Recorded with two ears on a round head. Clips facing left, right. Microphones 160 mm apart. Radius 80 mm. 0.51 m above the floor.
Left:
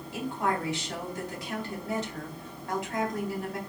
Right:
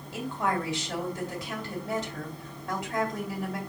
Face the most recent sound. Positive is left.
turn(degrees=-60)  # may be behind; listen again after turning